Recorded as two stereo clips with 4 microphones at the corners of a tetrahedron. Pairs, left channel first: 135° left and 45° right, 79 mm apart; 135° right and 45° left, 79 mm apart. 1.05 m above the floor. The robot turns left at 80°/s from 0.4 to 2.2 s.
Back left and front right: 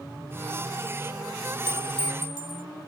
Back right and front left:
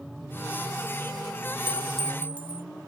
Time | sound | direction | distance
1.7 | a clink | 20° right | ?